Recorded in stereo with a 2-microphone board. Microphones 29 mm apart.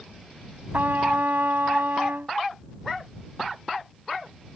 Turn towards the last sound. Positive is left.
turn(degrees=-75)  # may be behind; listen again after turning